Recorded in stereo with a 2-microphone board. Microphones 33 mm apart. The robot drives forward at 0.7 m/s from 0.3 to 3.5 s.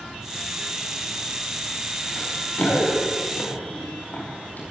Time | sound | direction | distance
2.2 | running footsteps | 55° left (ahead or behind) | 9.5 m